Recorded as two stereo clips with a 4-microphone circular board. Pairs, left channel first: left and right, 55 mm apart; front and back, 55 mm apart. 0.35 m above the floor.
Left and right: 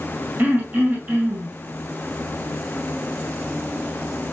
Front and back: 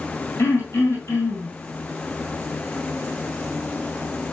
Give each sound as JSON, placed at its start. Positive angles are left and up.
{"t": 0.4, "sound": "throat clearing", "azimuth_deg": -35, "distance_m": 1.8}